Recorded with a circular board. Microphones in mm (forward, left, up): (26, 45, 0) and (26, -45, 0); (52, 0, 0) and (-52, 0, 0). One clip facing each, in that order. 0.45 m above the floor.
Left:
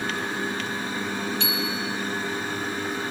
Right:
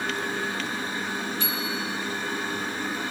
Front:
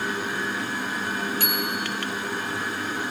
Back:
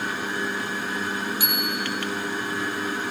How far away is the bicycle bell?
About 9 m.